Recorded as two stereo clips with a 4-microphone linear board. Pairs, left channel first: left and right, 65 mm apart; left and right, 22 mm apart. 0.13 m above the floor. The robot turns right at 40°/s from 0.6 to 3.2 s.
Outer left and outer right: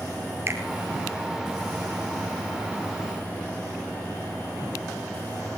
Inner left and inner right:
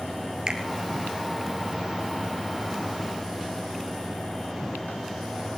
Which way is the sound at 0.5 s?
40° right (ahead or behind).